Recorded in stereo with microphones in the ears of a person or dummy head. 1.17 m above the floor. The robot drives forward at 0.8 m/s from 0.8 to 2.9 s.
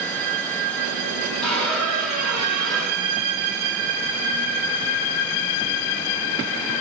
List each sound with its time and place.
1.4 s a squeak: 5° left (ahead or behind), 5.5 m